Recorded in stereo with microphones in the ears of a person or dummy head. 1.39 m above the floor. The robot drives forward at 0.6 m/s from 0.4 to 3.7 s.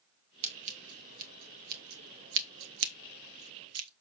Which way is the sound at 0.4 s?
35° right (ahead or behind).